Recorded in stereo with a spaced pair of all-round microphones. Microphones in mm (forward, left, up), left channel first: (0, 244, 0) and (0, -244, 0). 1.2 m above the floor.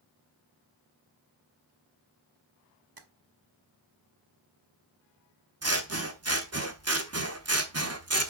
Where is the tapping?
45° right (ahead or behind), 1.0 m.